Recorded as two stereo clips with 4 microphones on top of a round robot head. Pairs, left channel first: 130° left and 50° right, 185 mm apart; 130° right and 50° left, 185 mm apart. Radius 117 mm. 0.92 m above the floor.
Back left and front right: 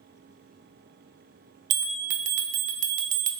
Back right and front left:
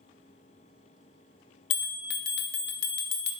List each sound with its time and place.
1.7 s a bell: 100° right, 0.5 m